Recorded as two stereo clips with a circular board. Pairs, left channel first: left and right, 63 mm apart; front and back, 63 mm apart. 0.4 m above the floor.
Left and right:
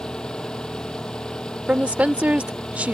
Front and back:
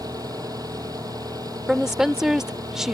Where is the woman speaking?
110° right.